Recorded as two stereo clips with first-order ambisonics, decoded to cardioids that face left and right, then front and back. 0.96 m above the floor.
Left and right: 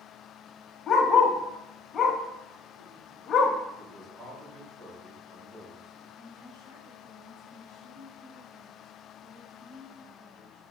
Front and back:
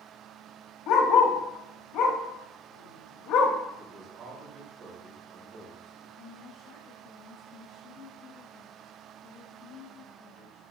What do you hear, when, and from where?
0.9 s a dog barking: 20° left, 1.5 m
3.8 s a man speaking: 130° right, 4.5 m
6.2 s a woman speaking: 65° right, 5 m